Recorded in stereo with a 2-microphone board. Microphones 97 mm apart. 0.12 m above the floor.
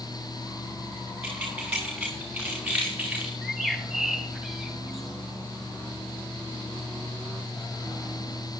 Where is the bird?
5° left (ahead or behind), 4 m.